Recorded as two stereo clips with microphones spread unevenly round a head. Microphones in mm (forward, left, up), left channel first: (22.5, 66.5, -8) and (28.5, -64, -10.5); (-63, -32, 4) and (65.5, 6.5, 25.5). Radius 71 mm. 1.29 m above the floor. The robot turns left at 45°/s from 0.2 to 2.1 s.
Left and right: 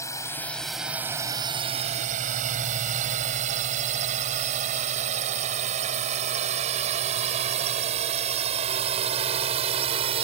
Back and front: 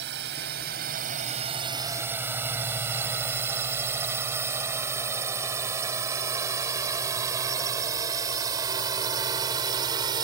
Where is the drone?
25° left; by 10.2 s 45° right.